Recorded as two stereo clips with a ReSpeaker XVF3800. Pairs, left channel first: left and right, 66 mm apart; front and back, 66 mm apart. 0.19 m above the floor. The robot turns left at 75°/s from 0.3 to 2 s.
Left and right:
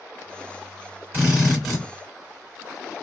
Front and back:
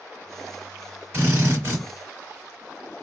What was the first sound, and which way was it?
A drill, 140° right.